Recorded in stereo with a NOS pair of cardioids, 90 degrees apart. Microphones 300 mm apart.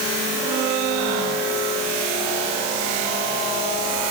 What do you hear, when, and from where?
Only background noise.